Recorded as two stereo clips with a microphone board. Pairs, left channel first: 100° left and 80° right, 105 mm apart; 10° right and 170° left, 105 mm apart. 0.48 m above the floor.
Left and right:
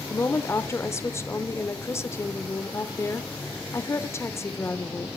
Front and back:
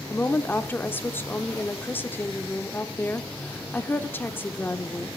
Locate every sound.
0.1 s a woman speaking: 50° left, 0.9 m